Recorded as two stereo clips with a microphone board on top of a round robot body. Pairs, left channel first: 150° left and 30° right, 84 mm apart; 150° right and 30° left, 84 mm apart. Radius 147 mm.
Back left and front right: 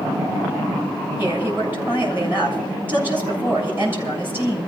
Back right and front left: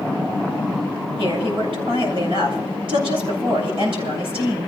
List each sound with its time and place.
1.2 s a woman speaking: 35° left, 7 m